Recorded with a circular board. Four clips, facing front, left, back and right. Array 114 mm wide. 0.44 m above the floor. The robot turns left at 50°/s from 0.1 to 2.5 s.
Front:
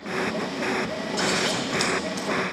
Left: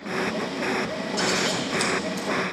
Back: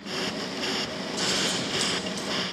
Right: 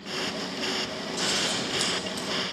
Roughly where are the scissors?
Ahead left.